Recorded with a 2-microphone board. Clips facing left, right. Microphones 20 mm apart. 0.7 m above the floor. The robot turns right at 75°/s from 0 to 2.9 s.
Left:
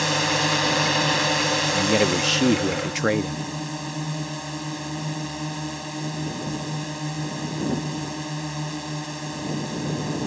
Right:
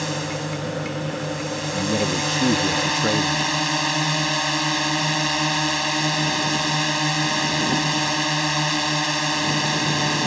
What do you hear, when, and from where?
0.0 s a drone: 15° left; by 10.3 s 125° right
1.7 s a man speaking: 50° left; by 3.5 s 140° left